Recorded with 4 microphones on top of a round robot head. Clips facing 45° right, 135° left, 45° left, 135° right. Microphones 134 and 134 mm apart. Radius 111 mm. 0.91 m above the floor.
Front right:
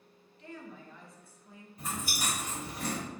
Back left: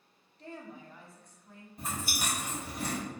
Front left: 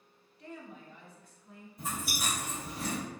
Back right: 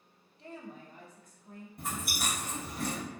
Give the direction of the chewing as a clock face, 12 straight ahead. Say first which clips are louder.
Even, even; 5 o'clock.